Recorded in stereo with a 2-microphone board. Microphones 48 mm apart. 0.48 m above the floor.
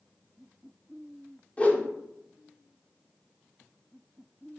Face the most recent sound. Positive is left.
turn(degrees=30)  # may be behind; listen again after turning